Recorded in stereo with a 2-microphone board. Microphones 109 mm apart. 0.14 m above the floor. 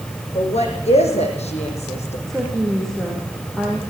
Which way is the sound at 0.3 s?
75° left (ahead or behind).